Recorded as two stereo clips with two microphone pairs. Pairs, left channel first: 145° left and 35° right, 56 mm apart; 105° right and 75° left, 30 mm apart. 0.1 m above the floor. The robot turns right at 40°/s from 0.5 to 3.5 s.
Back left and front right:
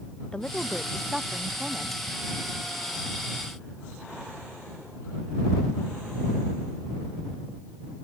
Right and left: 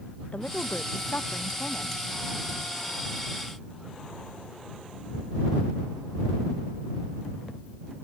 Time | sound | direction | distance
0.3 | a woman speaking | 145° right | ?